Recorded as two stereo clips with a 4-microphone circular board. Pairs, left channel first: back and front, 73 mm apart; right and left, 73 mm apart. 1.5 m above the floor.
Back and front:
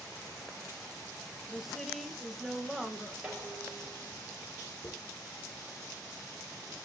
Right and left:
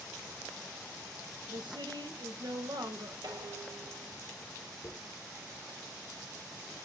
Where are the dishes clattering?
80° left, 5 m.